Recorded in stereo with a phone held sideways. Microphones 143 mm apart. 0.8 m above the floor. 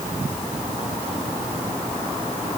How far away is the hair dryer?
I don't hear a hair dryer.